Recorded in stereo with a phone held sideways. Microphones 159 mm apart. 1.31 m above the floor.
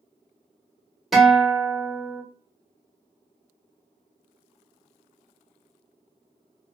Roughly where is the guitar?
Centre.